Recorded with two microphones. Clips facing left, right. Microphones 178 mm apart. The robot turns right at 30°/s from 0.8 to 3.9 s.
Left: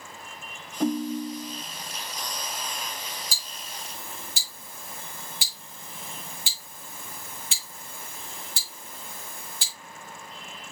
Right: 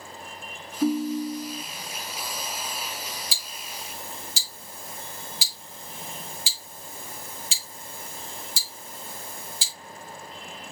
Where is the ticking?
45° left (ahead or behind), 1.7 m; by 9.7 s 65° left (ahead or behind), 1.7 m.